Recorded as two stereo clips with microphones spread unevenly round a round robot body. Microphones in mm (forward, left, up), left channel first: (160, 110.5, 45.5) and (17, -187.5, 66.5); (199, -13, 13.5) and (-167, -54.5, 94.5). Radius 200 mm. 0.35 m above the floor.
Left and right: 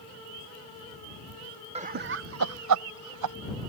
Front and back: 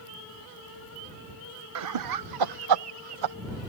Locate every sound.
1.8 s laughter: 175° right; by 3.4 s 150° right